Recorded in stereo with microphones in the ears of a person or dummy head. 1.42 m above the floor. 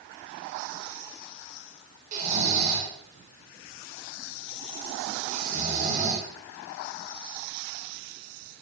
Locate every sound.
2.1 s snoring: 40° right (ahead or behind), 3.5 m